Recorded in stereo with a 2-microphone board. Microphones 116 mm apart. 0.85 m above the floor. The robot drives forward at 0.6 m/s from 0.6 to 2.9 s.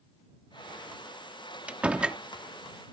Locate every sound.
1.7 s a door slam: 10° right (ahead or behind)